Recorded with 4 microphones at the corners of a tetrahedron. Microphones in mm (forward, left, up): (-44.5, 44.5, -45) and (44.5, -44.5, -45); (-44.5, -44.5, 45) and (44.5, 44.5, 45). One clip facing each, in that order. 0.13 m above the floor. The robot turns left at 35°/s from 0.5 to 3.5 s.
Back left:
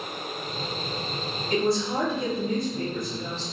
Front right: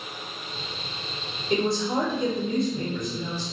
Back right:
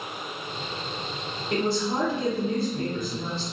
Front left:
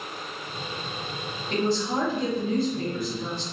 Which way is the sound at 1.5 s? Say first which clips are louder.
Even, even; 45° right.